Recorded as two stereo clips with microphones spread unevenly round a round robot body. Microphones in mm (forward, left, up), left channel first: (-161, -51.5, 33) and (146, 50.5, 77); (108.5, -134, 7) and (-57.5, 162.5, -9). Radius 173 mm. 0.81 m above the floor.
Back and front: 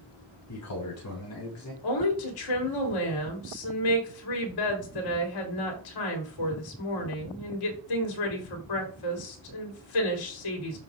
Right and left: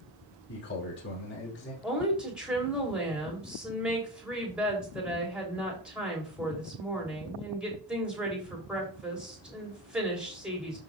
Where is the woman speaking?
155° right, 3.5 m.